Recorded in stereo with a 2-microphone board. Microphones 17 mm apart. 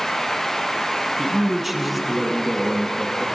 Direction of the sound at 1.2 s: Centre (ahead or behind).